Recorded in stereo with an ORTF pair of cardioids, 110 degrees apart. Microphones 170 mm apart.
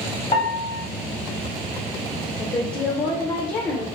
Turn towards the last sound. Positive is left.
turn(degrees=25)